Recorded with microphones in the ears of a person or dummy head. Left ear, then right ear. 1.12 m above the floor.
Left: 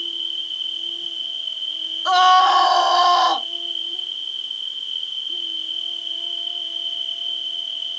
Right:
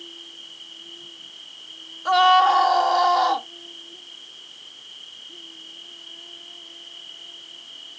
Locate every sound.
0.0 s an insect: 45° left (ahead or behind)
2.0 s a scream: 20° left (ahead or behind)